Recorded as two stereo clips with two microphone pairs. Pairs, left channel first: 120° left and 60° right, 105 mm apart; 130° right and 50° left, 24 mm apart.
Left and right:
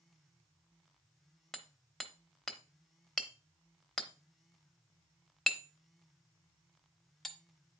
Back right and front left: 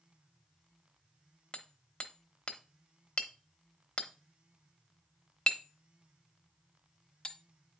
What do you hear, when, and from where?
1.5 s hammering: 155° right, 0.9 m